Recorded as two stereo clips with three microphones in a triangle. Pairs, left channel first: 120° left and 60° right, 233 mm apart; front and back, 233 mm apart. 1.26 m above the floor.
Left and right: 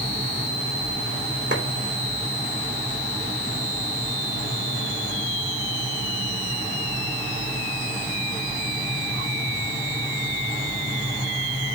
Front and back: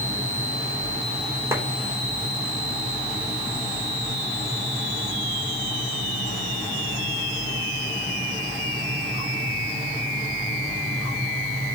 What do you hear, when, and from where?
1.5 s a clap: 100° right, 3 m